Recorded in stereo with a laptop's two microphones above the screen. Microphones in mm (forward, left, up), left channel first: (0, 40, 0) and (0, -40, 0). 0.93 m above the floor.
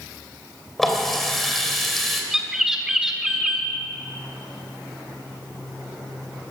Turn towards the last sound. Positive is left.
turn(degrees=-5)  # may be behind; listen again after turning